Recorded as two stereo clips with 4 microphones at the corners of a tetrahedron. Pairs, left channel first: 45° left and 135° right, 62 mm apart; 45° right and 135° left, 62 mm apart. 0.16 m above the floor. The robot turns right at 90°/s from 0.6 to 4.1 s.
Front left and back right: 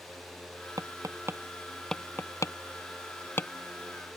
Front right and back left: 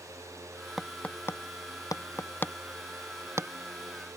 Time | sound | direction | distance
0.8 | tapping | 140° right | ?